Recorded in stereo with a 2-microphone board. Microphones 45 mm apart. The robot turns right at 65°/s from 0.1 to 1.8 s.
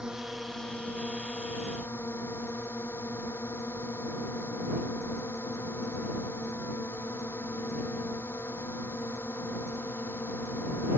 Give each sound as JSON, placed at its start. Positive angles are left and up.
{"t": 0.0, "sound": "a drone", "azimuth_deg": -20}